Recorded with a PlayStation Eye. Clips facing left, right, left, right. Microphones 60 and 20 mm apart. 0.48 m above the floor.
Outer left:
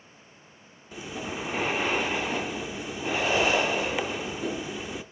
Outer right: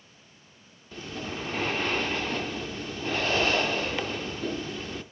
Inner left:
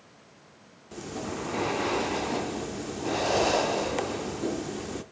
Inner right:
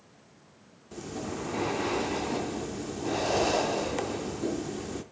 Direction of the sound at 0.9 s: 10° left (ahead or behind).